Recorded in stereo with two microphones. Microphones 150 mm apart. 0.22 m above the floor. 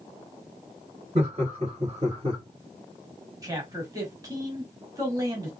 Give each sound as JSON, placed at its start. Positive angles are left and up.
{"t": 1.1, "sound": "laughter", "side_deg": -45, "distance_m": 2.5}
{"t": 3.4, "sound": "a man speaking", "side_deg": -25, "distance_m": 1.1}